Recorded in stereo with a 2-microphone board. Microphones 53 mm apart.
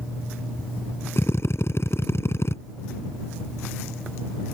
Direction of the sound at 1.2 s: 50° left (ahead or behind).